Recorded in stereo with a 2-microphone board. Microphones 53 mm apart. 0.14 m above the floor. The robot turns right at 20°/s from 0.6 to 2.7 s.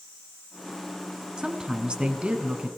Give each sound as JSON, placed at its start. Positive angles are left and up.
{"t": 1.4, "sound": "a woman speaking", "side_deg": -15, "distance_m": 1.4}